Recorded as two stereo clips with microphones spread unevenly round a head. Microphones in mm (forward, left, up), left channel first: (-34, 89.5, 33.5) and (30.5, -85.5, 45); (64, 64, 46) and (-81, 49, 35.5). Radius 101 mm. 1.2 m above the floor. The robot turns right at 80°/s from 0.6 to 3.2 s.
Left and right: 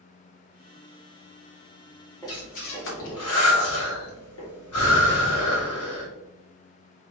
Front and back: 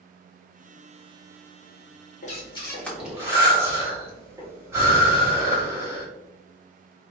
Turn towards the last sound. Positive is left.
turn(degrees=110)